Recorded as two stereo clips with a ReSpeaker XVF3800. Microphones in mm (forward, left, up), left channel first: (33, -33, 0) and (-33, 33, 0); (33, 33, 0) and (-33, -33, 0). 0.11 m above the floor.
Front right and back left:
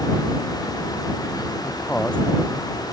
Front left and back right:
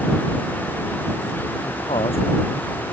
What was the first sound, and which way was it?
A man speaking, 35° left.